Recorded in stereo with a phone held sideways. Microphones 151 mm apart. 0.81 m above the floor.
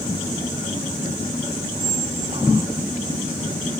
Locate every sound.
1.8 s a squeak: 40° right (ahead or behind)